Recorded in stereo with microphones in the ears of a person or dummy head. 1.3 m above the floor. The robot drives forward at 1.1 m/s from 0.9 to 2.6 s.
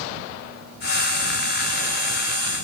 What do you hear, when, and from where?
Only background noise.